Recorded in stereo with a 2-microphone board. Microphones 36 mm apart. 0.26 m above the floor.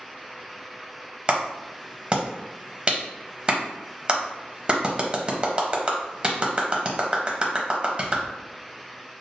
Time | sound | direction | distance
1.3 | a clap | 30° right (ahead or behind) | 1.0 m